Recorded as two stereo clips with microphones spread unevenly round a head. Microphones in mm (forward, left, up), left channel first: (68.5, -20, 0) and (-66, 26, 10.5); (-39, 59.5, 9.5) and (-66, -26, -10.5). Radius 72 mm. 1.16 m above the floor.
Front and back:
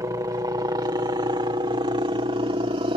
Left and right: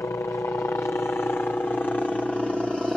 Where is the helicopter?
115° left; by 3.0 s 170° left.